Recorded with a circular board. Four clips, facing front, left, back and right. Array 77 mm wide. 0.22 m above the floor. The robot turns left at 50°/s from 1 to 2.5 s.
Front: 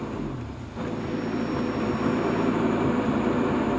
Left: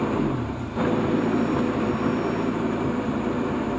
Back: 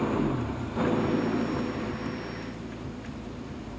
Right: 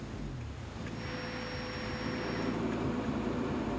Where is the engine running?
110° left; by 3.8 s 35° left.